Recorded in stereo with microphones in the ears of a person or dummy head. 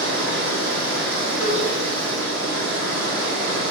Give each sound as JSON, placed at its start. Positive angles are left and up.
{"t": 0.0, "sound": "running water", "side_deg": -60, "distance_m": 1.7}
{"t": 1.4, "sound": "a cowbell", "side_deg": 20, "distance_m": 1.6}